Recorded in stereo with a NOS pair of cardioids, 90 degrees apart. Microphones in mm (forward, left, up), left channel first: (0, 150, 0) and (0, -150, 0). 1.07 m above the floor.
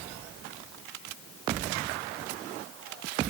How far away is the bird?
No bird in this recording.